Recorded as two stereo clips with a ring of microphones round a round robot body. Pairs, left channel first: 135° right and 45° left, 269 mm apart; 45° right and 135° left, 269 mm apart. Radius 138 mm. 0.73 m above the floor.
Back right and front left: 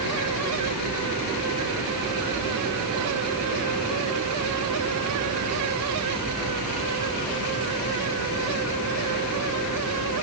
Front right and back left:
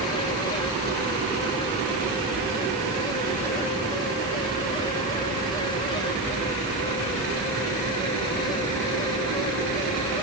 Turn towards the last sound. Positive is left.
No sound to turn to.